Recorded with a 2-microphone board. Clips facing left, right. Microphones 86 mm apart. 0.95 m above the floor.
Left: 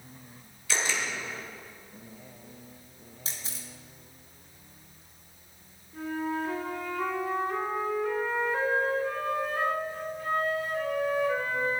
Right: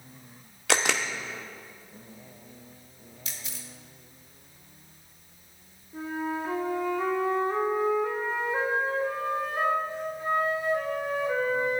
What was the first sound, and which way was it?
A camera shutter, 70° right (ahead or behind).